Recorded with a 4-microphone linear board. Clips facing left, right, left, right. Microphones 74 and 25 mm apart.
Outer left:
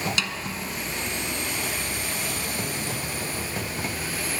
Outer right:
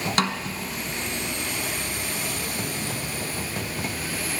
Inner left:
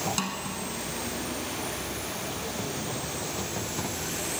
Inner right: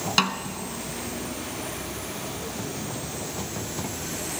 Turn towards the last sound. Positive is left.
turn(degrees=-50)  # may be behind; listen again after turning